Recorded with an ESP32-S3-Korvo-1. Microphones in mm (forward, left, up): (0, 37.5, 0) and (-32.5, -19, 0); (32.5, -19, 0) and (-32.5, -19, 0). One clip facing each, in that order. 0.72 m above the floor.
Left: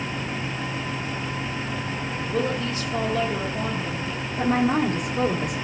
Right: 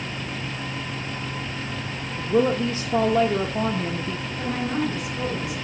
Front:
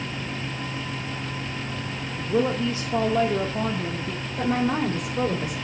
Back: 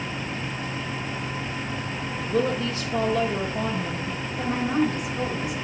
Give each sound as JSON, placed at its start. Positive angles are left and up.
{"t": 2.2, "sound": "a woman speaking", "azimuth_deg": -65, "distance_m": 1.1}
{"t": 4.4, "sound": "a woman speaking", "azimuth_deg": 20, "distance_m": 3.0}